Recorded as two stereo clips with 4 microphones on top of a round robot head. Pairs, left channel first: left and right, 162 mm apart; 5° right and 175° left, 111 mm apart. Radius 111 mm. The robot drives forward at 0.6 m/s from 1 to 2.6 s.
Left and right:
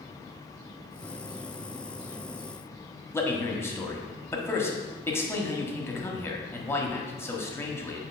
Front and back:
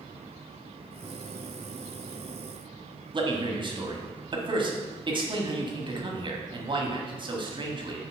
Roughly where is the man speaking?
Behind.